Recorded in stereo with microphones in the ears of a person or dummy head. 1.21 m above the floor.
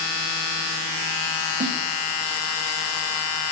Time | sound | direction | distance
1.6 | a snare drum | 55° right (ahead or behind) | 1.7 m